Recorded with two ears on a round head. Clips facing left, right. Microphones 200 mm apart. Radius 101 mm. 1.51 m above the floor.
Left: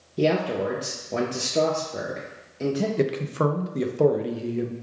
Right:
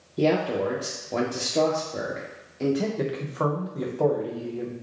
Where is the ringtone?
I don't hear a ringtone.